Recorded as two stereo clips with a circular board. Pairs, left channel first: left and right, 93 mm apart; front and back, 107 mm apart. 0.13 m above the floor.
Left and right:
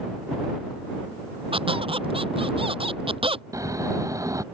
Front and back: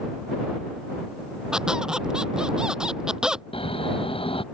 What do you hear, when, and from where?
1.5 s a squeak: 95° right
3.5 s snoring: 35° right